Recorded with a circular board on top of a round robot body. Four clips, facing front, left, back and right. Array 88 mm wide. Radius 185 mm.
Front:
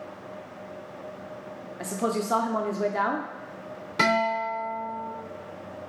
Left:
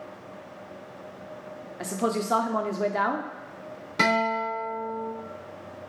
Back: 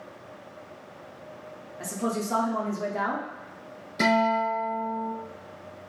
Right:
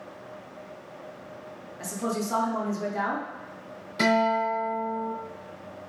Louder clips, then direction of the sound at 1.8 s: Left 3 dB, front 2 dB; 60° left.